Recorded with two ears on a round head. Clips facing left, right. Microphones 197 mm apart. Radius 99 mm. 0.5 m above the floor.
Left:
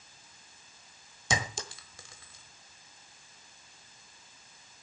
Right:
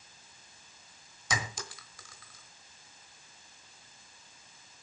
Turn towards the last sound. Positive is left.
turn(degrees=25)  # may be behind; listen again after turning